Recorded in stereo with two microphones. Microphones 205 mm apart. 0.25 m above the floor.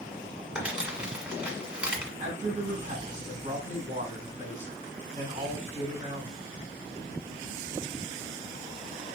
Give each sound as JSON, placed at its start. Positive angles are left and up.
{"t": 0.6, "sound": "crumpling", "side_deg": -5, "distance_m": 1.7}
{"t": 2.2, "sound": "a man speaking", "side_deg": -40, "distance_m": 1.6}